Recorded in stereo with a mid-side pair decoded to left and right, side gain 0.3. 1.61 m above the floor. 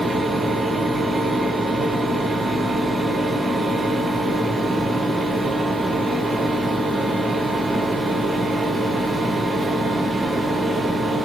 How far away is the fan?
About 0.9 m.